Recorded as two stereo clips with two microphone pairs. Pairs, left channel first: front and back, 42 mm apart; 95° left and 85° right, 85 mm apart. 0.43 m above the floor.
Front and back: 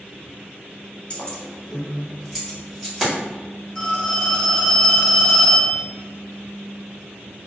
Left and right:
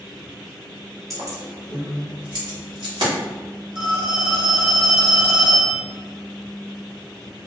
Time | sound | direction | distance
1.1 | keys jangling | 50° right | 0.7 m
3.8 | a phone ringing | 70° right | 1.3 m